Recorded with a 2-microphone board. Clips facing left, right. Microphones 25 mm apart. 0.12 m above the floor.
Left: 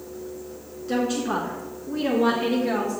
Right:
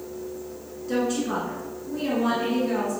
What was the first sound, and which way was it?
A woman speaking, 15° left (ahead or behind).